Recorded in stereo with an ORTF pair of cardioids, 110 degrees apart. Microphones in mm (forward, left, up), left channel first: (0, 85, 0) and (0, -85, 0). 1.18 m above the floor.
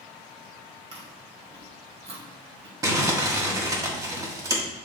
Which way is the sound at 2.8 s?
20° right.